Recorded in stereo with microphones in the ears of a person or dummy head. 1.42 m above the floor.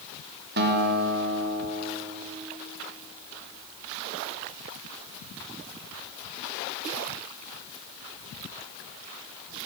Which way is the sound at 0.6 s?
65° right (ahead or behind).